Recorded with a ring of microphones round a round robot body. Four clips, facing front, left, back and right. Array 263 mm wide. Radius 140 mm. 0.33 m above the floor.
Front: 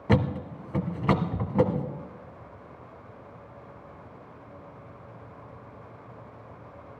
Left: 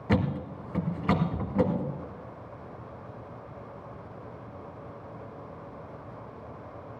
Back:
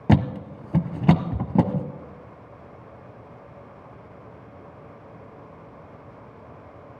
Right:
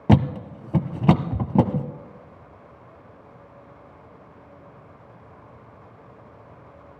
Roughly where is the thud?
Behind right.